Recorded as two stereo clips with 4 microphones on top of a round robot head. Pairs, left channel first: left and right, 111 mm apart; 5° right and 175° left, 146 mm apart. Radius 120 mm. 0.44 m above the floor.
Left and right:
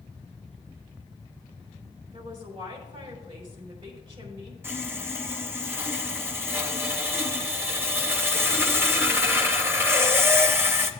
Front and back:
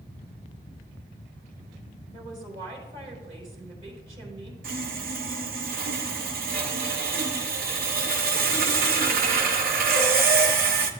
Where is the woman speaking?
120° right, 4.5 m.